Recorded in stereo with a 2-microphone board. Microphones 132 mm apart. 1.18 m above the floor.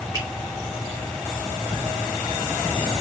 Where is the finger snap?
30° right (ahead or behind), 3 m.